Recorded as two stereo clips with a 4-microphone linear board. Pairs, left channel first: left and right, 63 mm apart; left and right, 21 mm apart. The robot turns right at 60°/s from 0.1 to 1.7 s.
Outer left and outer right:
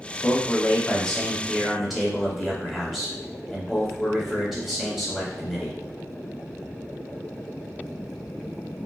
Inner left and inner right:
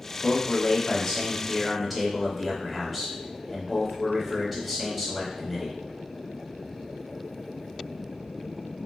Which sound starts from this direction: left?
A man speaking, at 0.2 s.